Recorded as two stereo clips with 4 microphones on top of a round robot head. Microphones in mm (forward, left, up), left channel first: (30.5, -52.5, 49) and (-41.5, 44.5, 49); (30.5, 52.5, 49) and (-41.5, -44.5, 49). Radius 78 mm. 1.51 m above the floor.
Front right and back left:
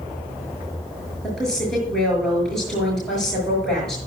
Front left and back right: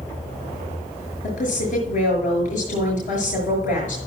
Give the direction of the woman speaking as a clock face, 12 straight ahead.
11 o'clock.